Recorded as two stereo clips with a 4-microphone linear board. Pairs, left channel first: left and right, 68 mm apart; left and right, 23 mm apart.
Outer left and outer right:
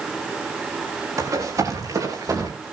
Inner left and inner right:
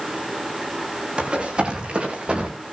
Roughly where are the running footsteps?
Right.